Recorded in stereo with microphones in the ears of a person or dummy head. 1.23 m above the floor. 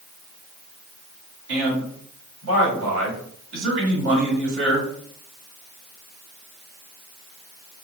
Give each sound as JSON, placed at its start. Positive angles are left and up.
{"t": 1.5, "sound": "a man speaking", "side_deg": -75, "distance_m": 2.5}